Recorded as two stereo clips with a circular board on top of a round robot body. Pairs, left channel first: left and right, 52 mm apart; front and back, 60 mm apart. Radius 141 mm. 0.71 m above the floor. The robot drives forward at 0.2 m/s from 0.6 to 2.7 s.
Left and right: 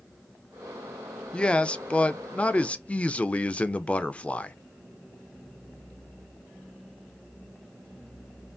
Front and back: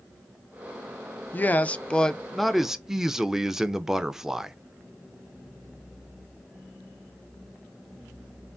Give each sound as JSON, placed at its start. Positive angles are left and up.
{"t": 1.3, "sound": "a man speaking", "azimuth_deg": 35, "distance_m": 0.5}